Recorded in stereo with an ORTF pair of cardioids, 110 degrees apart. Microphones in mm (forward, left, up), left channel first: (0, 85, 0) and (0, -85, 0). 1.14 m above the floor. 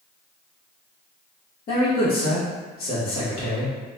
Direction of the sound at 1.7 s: 65° left.